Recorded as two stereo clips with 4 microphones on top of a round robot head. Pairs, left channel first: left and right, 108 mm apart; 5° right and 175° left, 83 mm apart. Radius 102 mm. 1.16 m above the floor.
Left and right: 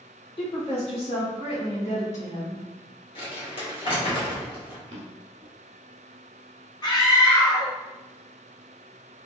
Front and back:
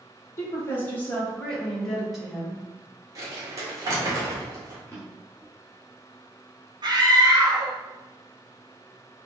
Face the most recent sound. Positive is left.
turn(degrees=140)